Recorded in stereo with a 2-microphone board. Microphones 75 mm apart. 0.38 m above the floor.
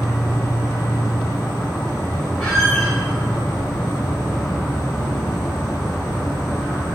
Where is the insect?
15° left (ahead or behind), 1.1 m.